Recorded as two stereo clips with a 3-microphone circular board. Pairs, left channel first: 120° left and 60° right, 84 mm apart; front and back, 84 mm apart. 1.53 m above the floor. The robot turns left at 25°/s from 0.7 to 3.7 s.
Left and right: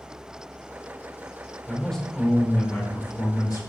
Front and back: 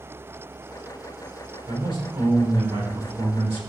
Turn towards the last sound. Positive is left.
turn(degrees=160)